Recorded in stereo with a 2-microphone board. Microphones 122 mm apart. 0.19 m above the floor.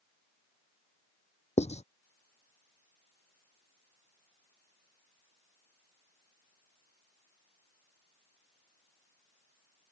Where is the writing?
75° left (ahead or behind).